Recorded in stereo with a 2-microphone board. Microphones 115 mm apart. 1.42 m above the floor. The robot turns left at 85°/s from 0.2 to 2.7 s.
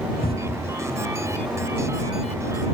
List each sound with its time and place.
0.2 s a cupboard door: 105° left; by 0.8 s 55° left